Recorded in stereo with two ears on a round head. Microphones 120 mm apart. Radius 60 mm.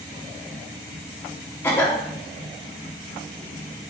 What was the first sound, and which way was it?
A cough, 15° left (ahead or behind).